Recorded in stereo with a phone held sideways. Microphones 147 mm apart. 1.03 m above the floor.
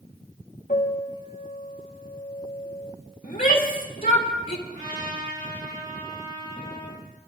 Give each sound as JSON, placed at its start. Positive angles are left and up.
{"t": 0.7, "sound": "a piano", "side_deg": 70, "distance_m": 2.0}
{"t": 3.2, "sound": "a shout", "side_deg": 75, "distance_m": 3.0}
{"t": 4.7, "sound": "a trumpet", "side_deg": -65, "distance_m": 6.0}